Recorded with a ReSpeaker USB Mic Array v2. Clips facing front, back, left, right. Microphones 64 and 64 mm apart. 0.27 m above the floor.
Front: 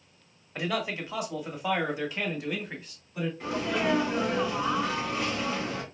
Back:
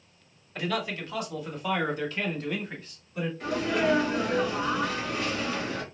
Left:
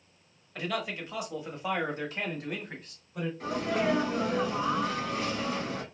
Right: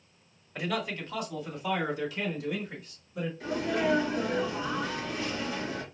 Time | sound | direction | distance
0.6 | a man speaking | 30° right | 1.1 m
3.4 | a sneeze | 65° left | 3.5 m